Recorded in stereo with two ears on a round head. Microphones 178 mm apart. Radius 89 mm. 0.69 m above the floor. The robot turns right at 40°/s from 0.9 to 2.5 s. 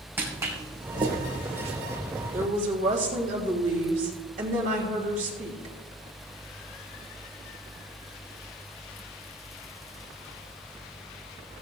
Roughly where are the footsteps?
Centre.